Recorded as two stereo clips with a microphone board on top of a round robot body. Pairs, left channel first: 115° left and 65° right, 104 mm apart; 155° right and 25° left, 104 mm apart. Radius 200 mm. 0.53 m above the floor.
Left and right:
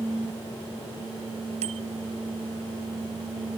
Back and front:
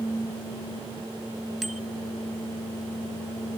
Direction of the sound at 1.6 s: 65° right.